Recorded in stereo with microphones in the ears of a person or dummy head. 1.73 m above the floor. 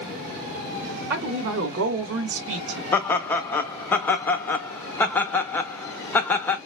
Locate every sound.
1.1 s a woman speaking: 55° right (ahead or behind), 0.9 m; by 2.8 s 75° right (ahead or behind), 1.1 m
2.9 s laughter: 5° left (ahead or behind), 0.5 m